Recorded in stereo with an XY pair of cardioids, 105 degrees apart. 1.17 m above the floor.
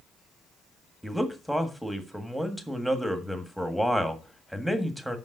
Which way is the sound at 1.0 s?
5° right.